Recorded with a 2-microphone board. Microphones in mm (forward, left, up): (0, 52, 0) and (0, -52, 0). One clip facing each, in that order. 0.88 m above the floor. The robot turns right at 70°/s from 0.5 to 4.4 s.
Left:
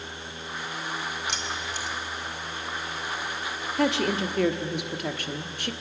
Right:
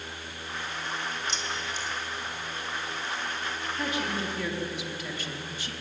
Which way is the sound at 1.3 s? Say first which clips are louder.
Left 1 dB; 65° left (ahead or behind).